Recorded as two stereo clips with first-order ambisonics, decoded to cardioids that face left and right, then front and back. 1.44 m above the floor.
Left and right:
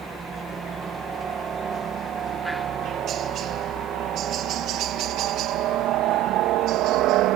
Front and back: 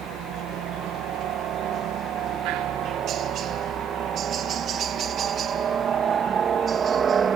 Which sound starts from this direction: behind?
A helicopter, at 0.0 s.